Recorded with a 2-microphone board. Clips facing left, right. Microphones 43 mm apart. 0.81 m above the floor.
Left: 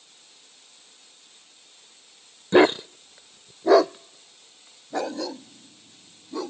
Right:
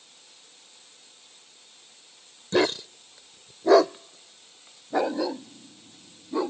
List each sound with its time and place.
2.5 s a dog barking: 35° left (ahead or behind); by 6.5 s 20° right (ahead or behind)